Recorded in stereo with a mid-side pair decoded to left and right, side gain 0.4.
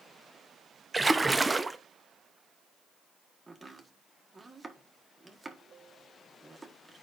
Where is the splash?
15° right, 0.6 m.